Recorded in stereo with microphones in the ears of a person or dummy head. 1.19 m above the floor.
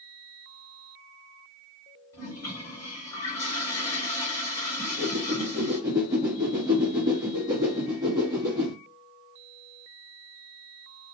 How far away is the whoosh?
About 1.1 m.